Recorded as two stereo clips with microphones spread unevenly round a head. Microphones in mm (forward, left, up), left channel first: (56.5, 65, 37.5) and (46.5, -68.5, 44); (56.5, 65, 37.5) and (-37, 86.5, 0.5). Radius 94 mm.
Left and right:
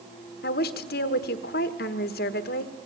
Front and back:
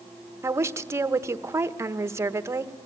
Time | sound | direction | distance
0.4 | a woman speaking | 100° left | 1.2 m